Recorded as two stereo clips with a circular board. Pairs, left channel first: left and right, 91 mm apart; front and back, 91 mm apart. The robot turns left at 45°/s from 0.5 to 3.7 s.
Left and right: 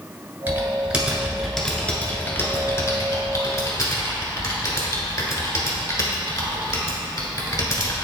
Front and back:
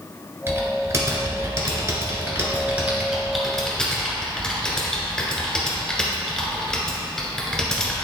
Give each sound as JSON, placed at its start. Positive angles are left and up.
{"t": 0.5, "sound": "typing on a keyboard", "azimuth_deg": -140, "distance_m": 1.5}